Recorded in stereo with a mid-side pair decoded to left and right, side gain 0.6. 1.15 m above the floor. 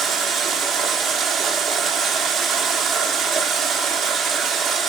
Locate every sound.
0.0 s running water: 55° right, 1.3 m